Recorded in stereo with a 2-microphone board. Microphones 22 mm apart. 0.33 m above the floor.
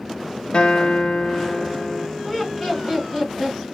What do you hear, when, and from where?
0.5 s a guitar: 50° left (ahead or behind), 0.6 m
2.2 s laughter: 5° left (ahead or behind), 1.6 m